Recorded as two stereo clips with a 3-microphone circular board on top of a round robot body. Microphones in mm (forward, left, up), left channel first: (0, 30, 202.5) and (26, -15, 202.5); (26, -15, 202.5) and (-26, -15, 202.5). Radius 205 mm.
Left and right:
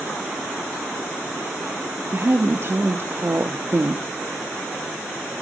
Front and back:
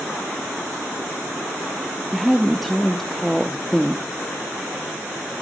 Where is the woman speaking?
85° right, 1.3 m.